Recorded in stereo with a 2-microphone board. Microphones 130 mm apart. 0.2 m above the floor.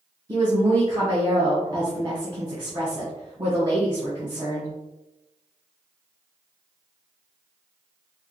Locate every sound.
0.3 s a woman speaking: 35° right (ahead or behind), 1.3 m